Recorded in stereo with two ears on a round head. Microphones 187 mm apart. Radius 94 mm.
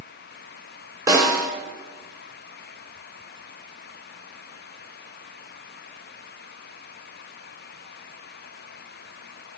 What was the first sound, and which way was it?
A snare drum, 15° right (ahead or behind).